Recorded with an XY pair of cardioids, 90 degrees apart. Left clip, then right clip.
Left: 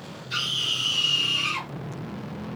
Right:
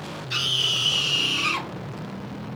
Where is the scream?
45° right, 1.9 m; by 1.7 s 80° right, 1.4 m.